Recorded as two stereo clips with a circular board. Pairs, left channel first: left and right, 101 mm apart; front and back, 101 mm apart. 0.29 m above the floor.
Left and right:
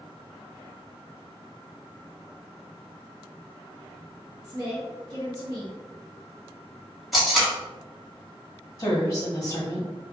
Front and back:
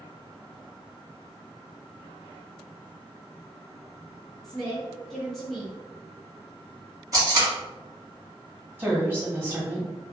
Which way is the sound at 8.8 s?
120° left.